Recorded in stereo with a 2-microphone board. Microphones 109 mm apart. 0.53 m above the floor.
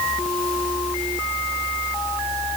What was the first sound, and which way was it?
Only background noise.